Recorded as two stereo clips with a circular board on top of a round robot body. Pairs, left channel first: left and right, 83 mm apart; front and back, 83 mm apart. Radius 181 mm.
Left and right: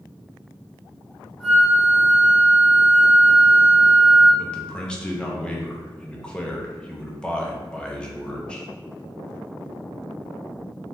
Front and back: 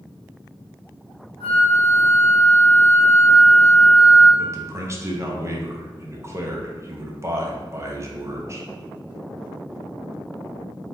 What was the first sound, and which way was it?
A flute, 10° left.